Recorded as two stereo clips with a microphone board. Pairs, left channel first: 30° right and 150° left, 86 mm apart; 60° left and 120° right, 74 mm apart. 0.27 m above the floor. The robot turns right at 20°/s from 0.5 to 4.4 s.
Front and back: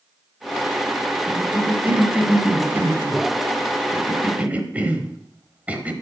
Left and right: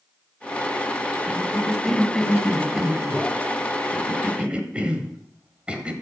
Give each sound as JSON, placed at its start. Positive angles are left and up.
{"t": 1.3, "sound": "a cough", "azimuth_deg": 125, "distance_m": 1.0}